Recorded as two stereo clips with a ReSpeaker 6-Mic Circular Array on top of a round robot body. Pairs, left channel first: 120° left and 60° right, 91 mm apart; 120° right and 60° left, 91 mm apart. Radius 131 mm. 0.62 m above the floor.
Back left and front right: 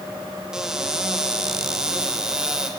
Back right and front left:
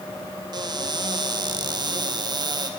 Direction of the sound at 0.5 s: 25° left.